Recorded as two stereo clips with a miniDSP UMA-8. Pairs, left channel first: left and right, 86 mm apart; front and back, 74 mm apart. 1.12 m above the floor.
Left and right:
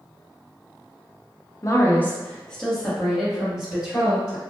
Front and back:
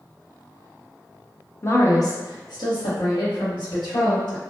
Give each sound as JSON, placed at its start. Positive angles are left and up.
{"t": 1.6, "sound": "a woman speaking", "azimuth_deg": 50, "distance_m": 0.5}